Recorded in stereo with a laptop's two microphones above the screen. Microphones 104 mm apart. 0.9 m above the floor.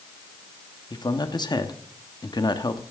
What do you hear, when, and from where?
0.9 s a man speaking: 45° left (ahead or behind), 1.1 m